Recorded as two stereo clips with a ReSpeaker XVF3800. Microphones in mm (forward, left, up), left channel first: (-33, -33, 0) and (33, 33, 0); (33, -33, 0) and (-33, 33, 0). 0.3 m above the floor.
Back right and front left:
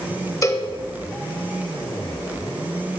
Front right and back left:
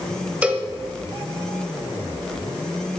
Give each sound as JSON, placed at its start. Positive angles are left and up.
{"t": 0.4, "sound": "a cowbell", "azimuth_deg": -160, "distance_m": 0.9}